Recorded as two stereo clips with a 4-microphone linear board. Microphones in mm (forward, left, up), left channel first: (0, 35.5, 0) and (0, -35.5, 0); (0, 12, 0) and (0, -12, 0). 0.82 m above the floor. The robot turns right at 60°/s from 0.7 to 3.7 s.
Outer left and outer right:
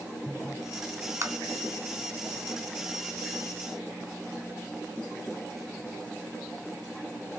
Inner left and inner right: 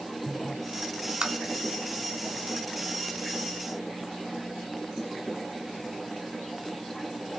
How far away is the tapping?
About 1.5 m.